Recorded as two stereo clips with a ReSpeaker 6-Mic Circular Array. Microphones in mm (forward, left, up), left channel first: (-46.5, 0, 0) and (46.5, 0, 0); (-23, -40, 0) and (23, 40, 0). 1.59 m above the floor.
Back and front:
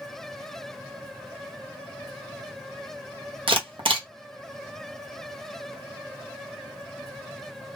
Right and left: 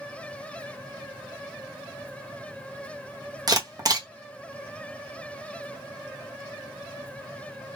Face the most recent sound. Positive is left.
turn(degrees=15)